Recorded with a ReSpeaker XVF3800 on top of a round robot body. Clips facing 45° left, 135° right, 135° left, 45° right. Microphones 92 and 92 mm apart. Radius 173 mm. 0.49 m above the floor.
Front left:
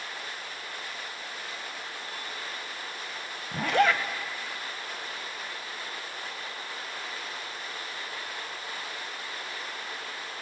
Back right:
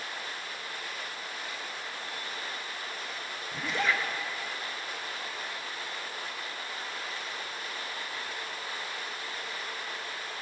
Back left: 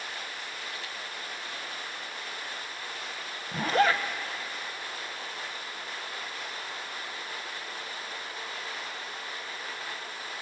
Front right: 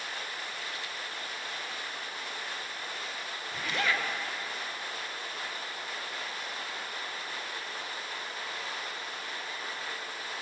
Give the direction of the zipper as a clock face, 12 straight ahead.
9 o'clock.